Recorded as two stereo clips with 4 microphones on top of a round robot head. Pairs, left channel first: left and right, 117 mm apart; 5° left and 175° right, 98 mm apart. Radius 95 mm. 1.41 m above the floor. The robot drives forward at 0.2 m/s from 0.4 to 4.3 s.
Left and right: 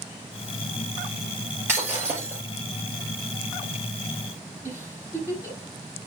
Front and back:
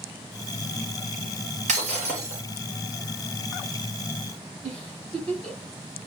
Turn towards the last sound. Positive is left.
turn(degrees=-165)